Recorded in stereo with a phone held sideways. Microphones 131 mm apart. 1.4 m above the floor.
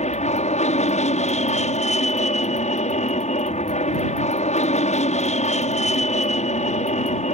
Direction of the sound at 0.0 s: 60° left (ahead or behind).